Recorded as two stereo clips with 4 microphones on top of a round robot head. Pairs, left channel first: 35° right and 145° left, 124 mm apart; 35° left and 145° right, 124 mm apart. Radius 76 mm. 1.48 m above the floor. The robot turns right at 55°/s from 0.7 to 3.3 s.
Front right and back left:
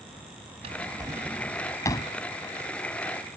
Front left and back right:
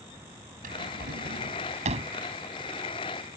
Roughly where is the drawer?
Behind.